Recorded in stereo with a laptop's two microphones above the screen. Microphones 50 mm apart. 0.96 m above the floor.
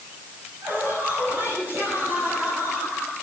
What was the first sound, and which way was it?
Laughter, 40° right (ahead or behind).